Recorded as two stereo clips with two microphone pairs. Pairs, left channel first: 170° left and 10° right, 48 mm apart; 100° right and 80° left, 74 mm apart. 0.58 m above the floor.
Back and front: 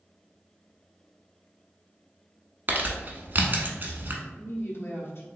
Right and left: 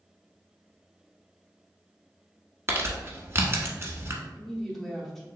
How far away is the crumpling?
About 0.8 m.